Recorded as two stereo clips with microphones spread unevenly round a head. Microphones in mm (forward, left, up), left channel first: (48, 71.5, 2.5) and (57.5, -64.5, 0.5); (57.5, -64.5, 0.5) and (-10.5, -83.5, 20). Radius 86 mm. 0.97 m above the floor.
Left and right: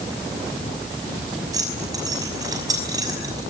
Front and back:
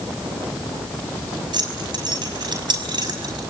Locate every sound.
1.5 s keys jangling: 155° right, 5.5 m